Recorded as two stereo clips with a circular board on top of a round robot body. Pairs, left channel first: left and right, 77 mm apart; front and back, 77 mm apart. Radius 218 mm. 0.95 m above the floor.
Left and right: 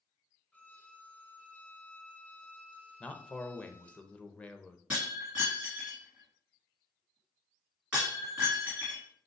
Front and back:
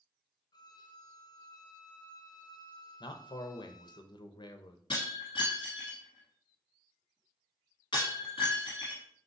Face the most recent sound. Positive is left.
turn(degrees=-10)